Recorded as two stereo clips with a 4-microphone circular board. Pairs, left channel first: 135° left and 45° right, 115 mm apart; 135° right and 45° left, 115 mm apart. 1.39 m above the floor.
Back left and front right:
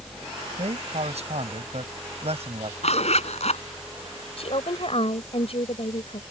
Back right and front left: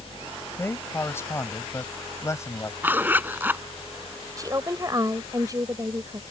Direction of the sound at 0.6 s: 65° right.